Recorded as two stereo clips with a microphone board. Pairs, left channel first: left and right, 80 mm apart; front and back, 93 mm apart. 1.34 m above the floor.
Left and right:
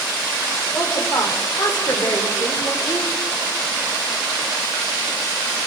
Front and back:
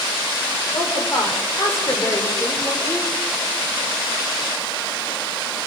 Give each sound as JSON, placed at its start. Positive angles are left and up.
{"t": 0.7, "sound": "a woman speaking", "azimuth_deg": 50, "distance_m": 5.5}